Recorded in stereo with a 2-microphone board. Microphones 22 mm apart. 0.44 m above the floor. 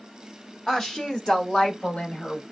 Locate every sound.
0.7 s a woman speaking: 20° left (ahead or behind), 0.8 m; by 2.4 s 60° left (ahead or behind), 2 m